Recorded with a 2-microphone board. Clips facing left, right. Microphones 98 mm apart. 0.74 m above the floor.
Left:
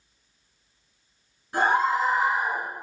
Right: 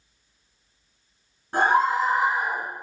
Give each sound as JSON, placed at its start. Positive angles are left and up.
{"t": 1.5, "sound": "a scream", "side_deg": -45, "distance_m": 1.3}